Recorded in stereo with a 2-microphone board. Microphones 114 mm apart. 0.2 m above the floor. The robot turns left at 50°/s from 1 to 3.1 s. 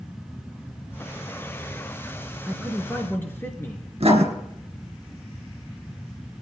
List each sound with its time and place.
2.5 s a man speaking: 170° right, 2.5 m; by 3.9 s 160° left, 2.5 m
4.0 s writing: 65° right (ahead or behind), 2.5 m